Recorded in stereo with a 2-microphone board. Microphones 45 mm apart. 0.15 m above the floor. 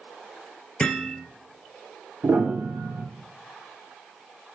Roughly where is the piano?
Right.